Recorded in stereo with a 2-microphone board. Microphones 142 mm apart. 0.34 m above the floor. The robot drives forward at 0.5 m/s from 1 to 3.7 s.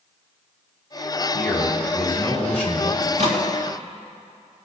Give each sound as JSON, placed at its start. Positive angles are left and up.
{"t": 1.3, "sound": "a man speaking", "side_deg": 10, "distance_m": 3.0}
{"t": 3.0, "sound": "a microwave", "side_deg": -65, "distance_m": 3.5}